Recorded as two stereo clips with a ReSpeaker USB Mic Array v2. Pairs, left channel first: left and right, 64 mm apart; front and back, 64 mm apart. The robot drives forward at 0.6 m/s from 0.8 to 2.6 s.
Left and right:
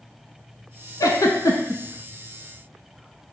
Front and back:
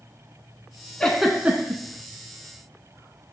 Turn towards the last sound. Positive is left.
turn(degrees=150)